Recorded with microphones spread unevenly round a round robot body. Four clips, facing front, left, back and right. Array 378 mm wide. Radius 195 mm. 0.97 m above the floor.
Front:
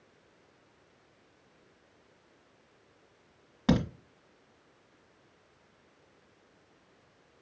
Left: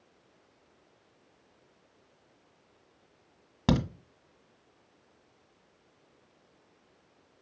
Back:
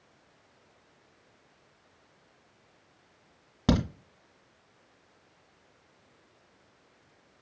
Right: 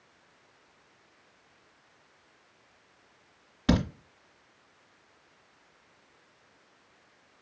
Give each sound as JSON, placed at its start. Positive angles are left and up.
{"t": 3.7, "sound": "a crack", "azimuth_deg": 130, "distance_m": 1.6}